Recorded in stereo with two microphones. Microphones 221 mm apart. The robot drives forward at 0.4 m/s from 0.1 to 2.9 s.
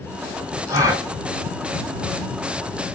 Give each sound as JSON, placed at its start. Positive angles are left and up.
{"t": 0.7, "sound": "a gasp", "side_deg": -15, "distance_m": 1.8}